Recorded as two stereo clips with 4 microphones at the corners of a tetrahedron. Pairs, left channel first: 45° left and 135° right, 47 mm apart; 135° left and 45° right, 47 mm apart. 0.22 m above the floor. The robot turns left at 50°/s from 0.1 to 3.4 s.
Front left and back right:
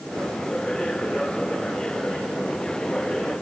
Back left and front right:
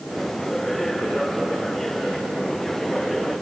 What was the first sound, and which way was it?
Only background noise.